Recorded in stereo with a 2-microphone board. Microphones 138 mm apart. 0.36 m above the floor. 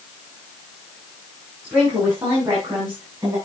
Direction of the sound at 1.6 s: 15° right (ahead or behind).